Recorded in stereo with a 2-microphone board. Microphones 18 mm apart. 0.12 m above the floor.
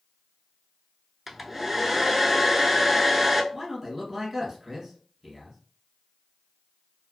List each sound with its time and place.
1.3 s a hair dryer: 5° right (ahead or behind), 0.5 m
3.5 s a man speaking: centre (ahead or behind), 1.5 m